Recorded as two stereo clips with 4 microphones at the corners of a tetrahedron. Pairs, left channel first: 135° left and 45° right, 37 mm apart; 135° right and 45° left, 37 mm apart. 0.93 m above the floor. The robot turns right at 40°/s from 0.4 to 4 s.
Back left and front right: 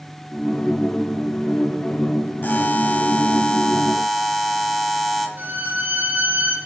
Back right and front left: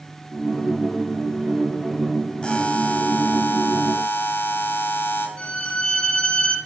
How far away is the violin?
About 1.9 m.